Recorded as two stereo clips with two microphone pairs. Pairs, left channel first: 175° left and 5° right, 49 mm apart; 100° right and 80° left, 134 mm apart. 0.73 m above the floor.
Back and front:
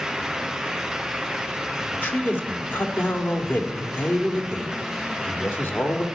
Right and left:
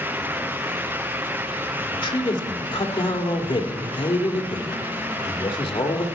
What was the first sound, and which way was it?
A man speaking, 150° right.